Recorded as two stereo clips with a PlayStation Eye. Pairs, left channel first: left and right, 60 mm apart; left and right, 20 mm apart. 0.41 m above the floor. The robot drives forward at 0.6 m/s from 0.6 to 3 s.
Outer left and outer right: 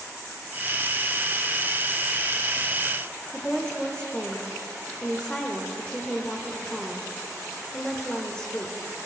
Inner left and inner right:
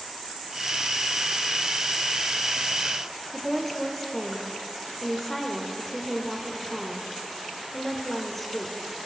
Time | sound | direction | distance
3.3 | a woman speaking | 15° left (ahead or behind) | 0.9 m